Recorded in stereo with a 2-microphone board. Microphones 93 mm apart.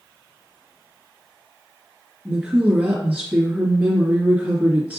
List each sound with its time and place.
2.2 s a woman speaking: 20° right (ahead or behind), 1.6 m